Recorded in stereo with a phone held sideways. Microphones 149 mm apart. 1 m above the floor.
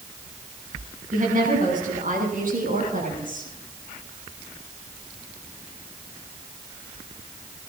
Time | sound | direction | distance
1.1 | a woman speaking | 65° right (ahead or behind) | 7 m